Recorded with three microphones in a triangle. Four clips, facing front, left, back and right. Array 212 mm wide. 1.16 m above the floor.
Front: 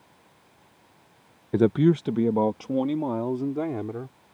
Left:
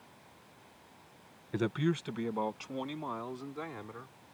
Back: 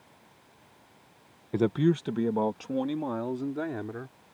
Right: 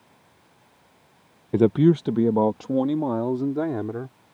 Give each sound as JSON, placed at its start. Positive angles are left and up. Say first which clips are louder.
{"t": 1.5, "sound": "a man speaking", "louder": "right 14 dB, front 5 dB", "azimuth_deg": -55}